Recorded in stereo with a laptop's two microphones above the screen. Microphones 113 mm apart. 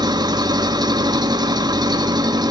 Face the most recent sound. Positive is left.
turn(degrees=-35)  # may be behind; listen again after turning